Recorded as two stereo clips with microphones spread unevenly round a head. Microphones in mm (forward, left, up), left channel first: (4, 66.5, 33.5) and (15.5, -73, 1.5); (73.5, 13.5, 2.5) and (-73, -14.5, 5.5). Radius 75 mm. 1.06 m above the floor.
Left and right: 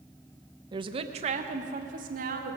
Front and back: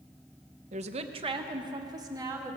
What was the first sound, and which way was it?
A woman speaking, 130° right.